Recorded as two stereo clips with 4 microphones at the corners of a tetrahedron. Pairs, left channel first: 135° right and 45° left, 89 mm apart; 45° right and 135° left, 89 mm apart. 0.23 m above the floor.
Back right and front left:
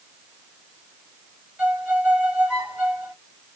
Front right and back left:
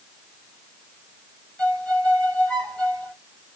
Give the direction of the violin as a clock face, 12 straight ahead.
12 o'clock.